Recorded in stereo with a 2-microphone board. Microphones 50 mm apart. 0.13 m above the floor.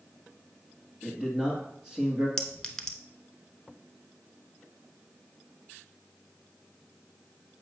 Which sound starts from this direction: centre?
A clink, at 2.4 s.